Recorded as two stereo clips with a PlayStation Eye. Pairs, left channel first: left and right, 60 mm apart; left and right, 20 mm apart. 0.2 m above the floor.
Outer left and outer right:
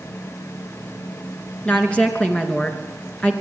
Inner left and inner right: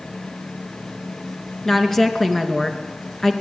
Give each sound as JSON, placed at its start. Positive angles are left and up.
{"t": 1.6, "sound": "a woman speaking", "side_deg": 20, "distance_m": 3.0}